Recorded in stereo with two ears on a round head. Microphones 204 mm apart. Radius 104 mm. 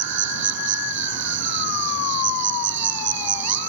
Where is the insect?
55° right (ahead or behind).